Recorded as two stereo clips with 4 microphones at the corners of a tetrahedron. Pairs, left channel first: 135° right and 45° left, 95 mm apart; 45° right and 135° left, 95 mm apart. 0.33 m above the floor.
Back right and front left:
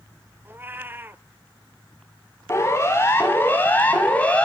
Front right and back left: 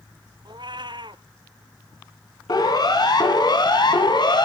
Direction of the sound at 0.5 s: 110° left.